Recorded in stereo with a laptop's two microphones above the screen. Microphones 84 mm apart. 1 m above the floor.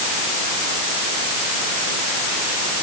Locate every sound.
Only background noise.